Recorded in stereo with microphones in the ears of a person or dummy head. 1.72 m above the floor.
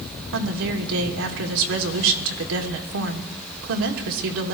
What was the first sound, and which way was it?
A woman speaking, 80° right.